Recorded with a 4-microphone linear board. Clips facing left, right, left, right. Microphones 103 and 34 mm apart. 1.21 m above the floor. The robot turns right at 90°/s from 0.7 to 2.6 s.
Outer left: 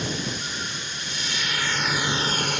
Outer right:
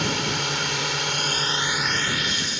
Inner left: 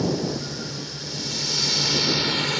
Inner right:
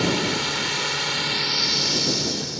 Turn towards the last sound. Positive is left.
turn(degrees=65)